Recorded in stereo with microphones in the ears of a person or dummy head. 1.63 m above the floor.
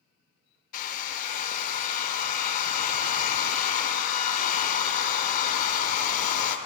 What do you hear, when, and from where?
0.7 s a hair dryer: 45° left (ahead or behind), 0.6 m